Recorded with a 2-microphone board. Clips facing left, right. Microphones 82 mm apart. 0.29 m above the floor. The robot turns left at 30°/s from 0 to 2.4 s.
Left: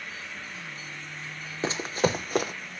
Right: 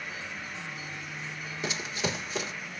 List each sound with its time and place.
1.6 s running footsteps: 35° left (ahead or behind), 0.7 m; by 2.5 s 55° left (ahead or behind), 0.7 m